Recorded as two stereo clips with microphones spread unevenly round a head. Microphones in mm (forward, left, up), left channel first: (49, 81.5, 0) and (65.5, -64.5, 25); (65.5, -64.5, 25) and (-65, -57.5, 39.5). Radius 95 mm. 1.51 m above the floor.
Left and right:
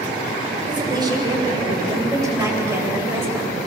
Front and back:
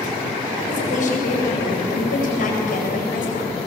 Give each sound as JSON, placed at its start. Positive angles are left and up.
{"t": 0.7, "sound": "a woman speaking", "azimuth_deg": -25, "distance_m": 9.0}